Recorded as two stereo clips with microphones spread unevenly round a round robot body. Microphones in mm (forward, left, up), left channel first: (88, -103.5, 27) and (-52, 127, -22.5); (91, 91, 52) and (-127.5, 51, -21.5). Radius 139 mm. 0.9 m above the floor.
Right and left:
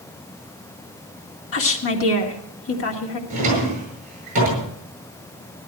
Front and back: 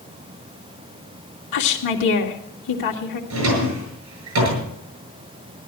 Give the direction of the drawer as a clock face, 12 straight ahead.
6 o'clock.